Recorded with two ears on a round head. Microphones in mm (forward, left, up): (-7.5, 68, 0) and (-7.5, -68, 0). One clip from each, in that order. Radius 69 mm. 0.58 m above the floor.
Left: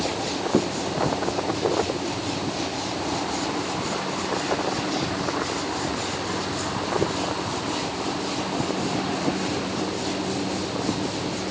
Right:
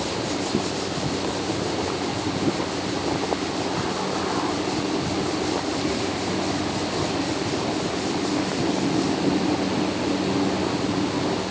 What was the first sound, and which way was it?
Only background noise.